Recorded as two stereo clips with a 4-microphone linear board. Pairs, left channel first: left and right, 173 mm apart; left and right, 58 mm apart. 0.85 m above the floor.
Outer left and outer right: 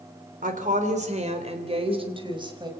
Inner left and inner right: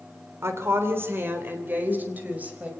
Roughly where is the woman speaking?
Right.